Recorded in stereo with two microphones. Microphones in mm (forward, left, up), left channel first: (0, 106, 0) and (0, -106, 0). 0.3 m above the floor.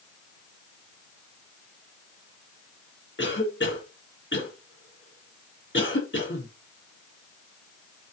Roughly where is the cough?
Left.